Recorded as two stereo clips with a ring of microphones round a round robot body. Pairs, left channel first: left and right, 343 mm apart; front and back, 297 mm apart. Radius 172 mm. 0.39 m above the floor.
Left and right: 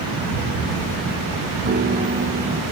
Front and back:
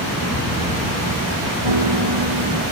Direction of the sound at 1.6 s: 155° right.